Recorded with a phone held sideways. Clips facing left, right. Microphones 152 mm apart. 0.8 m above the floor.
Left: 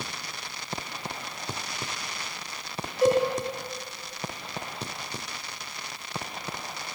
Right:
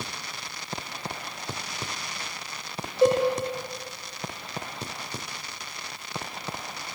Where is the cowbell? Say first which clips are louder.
Right 1 dB; 25° right (ahead or behind), 2 m.